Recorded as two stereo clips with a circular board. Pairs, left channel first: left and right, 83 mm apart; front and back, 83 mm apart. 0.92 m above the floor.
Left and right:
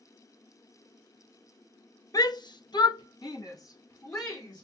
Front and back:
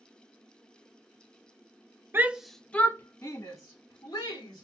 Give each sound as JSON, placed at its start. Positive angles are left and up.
{"t": 2.1, "sound": "a shout", "azimuth_deg": 120, "distance_m": 0.6}